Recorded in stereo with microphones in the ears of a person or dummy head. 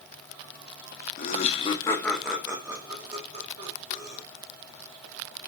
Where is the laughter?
40° left (ahead or behind), 0.8 m; by 4.2 s 45° right (ahead or behind), 1.4 m.